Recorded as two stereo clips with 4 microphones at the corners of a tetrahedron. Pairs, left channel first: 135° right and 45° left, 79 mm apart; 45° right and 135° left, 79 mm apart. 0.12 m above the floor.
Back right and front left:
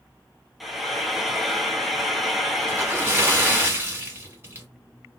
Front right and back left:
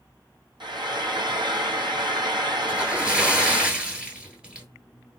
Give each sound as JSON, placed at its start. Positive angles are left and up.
{"t": 0.6, "sound": "frying", "azimuth_deg": 135, "distance_m": 0.8}
{"t": 2.7, "sound": "a splash", "azimuth_deg": 70, "distance_m": 1.2}